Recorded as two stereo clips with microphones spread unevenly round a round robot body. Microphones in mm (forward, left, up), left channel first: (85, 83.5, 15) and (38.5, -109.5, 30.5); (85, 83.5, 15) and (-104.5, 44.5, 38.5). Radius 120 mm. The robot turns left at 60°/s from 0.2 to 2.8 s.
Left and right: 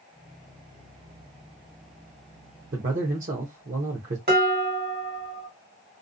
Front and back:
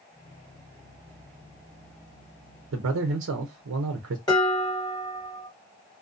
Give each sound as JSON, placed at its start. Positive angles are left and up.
{"t": 2.7, "sound": "a man speaking", "azimuth_deg": -155, "distance_m": 0.5}
{"t": 4.3, "sound": "dishes clattering", "azimuth_deg": -65, "distance_m": 1.4}